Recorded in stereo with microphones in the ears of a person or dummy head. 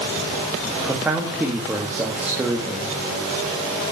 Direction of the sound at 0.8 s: 5° right (ahead or behind).